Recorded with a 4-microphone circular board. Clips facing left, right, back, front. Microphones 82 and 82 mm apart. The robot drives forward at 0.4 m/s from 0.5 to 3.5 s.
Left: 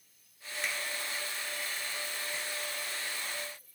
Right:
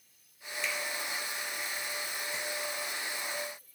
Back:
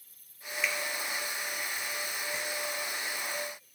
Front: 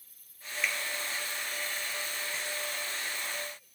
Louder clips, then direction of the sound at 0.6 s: Right 1 dB, back 1 dB; 90° left.